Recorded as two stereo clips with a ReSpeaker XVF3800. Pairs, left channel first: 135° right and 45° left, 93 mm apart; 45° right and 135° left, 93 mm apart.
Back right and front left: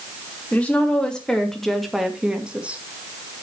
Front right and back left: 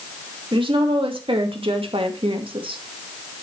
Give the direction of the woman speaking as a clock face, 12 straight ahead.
7 o'clock.